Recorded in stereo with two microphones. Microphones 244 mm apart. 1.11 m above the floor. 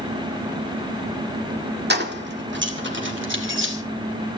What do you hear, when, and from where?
1.9 s keys jangling: 45° right (ahead or behind), 1.8 m; by 3.7 s 55° right (ahead or behind), 3 m